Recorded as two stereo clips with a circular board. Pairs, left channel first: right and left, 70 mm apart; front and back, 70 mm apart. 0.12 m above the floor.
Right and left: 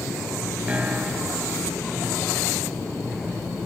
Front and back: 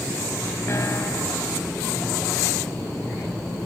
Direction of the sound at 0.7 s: 25° left.